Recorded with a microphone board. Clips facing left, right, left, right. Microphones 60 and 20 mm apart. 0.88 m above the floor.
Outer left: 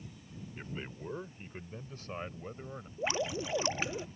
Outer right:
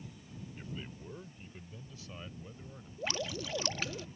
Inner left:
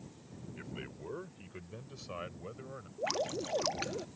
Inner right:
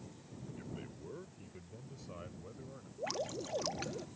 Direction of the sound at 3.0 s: 25° left (ahead or behind).